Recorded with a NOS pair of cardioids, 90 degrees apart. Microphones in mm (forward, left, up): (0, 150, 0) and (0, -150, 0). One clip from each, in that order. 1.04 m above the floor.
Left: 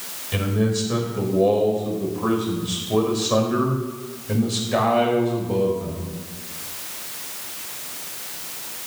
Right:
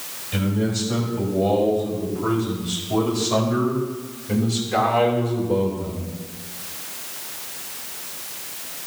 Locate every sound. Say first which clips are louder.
0.3 s a man speaking: left 2 dB; 40° left, 5 m; by 6.1 s straight ahead, 5 m